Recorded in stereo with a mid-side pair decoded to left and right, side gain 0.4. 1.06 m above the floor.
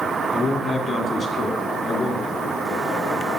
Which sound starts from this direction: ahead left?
A man speaking, at 0.3 s.